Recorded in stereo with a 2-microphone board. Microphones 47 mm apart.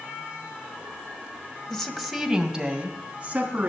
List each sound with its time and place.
1.7 s a woman speaking: 15° left (ahead or behind), 1.8 m; by 3.7 s 35° right (ahead or behind), 3.5 m